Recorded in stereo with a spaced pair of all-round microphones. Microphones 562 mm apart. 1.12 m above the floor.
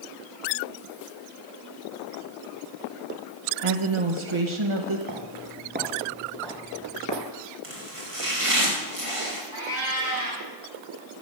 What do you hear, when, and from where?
3.6 s a woman speaking: 60° right (ahead or behind), 1.3 m
5.1 s footsteps: 40° right (ahead or behind), 1.3 m; by 7.3 s 35° left (ahead or behind), 1.3 m
7.6 s chopping: 65° right (ahead or behind), 2 m
9.5 s a cat meowing: 40° right (ahead or behind), 5.5 m